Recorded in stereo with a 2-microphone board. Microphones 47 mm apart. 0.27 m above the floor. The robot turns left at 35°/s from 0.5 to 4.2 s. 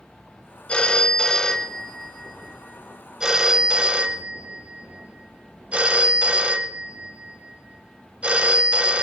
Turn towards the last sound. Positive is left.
turn(degrees=-60)